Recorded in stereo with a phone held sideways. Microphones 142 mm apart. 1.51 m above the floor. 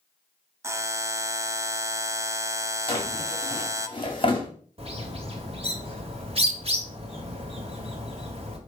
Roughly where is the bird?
Right.